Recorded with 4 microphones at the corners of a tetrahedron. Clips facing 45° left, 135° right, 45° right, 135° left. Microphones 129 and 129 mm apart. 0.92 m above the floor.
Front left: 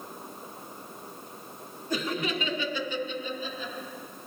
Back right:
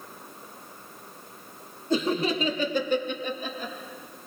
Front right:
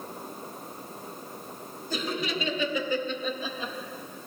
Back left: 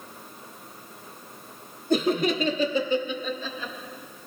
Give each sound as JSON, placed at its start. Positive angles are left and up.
{"t": 1.9, "sound": "laughter", "azimuth_deg": 160, "distance_m": 2.0}